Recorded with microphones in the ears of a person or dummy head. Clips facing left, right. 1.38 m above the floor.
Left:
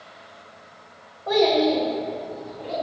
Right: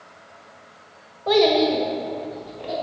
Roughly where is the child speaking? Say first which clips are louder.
Right 2 dB; right.